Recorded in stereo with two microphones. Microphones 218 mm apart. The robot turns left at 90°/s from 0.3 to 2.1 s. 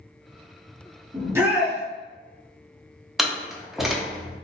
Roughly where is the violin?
I don't hear a violin.